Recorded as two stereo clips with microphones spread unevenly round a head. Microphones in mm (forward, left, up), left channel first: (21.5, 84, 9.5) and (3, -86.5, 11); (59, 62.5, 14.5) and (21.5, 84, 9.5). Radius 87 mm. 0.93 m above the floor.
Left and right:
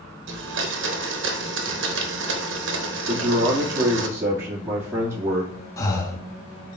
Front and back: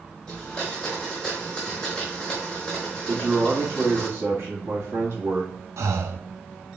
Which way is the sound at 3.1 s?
170° right.